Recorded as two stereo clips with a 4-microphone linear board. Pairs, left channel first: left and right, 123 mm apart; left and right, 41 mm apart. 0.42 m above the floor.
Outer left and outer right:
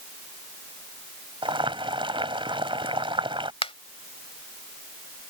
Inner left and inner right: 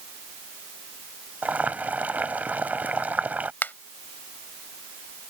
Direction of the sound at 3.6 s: 50° left (ahead or behind).